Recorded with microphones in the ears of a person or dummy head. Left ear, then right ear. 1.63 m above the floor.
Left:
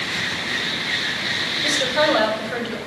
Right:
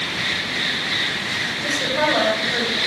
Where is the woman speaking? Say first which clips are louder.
Left 2 dB; 55° left (ahead or behind), 3.5 m; by 2.8 s 50° left (ahead or behind), 4 m.